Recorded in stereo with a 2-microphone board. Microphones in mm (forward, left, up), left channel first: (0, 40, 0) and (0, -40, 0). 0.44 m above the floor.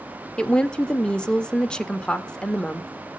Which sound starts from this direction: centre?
A woman speaking, at 0.4 s.